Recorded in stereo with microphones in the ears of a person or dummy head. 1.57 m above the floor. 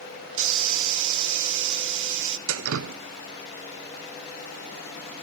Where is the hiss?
75° right (ahead or behind), 1.2 m.